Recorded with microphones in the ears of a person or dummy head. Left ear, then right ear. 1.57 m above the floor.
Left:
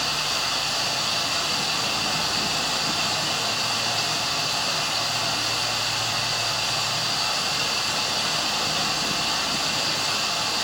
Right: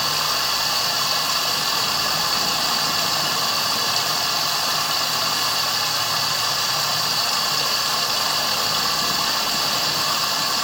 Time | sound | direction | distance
0.0 | running water | 60° right (ahead or behind) | 0.9 m